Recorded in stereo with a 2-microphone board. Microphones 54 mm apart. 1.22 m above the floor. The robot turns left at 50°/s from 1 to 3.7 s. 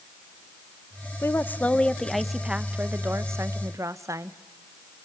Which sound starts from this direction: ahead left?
A woman speaking, at 1.2 s.